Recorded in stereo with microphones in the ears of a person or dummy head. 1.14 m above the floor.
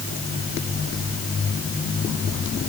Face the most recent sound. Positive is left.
No sound to turn to.